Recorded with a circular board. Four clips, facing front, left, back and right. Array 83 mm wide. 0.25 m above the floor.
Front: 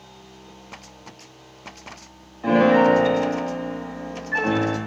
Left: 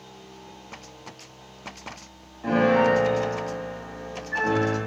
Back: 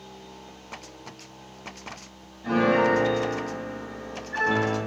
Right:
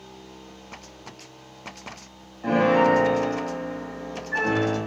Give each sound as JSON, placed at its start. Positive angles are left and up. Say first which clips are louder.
{"t": 2.4, "sound": "a piano", "louder": "right 1 dB, front 6 dB", "azimuth_deg": -10, "distance_m": 5.0}